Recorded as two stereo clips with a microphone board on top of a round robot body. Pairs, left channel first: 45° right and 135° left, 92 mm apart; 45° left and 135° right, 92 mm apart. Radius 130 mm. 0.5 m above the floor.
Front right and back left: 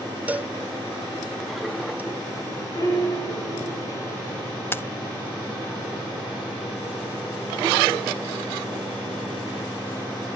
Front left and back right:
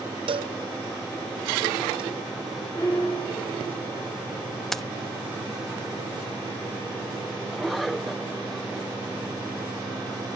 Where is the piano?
10° right, 7 m.